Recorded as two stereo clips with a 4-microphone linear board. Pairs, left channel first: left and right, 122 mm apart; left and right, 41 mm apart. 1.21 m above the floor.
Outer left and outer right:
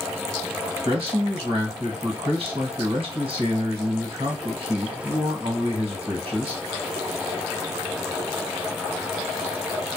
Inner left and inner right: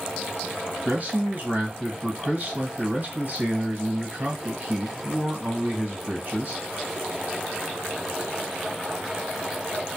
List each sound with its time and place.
0.8 s a man speaking: 45° right (ahead or behind), 1.4 m